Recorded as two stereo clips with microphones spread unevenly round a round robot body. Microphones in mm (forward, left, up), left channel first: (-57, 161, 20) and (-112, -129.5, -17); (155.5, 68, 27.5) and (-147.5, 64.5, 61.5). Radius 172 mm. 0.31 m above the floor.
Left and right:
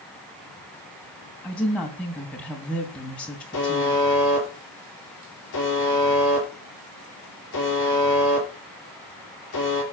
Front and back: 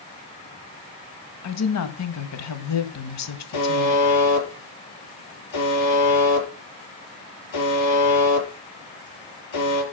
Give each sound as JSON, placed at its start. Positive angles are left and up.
{"t": 1.4, "sound": "a woman speaking", "azimuth_deg": -10, "distance_m": 2.5}
{"t": 3.5, "sound": "a buzzer", "azimuth_deg": 20, "distance_m": 6.5}